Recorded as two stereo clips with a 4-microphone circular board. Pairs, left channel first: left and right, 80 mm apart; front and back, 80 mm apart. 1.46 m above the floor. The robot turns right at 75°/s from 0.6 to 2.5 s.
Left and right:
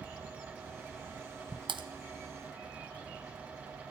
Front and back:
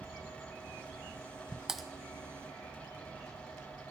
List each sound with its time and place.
1.7 s typing on a keyboard: 100° right, 1.0 m; by 1.8 s 90° right, 1.0 m